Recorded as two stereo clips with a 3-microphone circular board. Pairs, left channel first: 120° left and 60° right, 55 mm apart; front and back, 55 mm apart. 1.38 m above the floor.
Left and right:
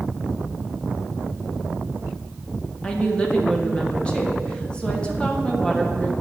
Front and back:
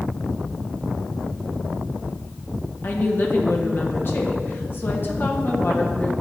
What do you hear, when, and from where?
2.8 s a woman speaking: 45° left, 1.1 m